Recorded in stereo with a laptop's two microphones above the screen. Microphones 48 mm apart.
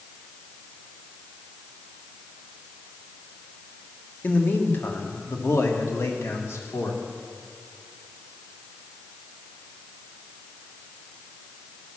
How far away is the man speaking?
About 1.7 m.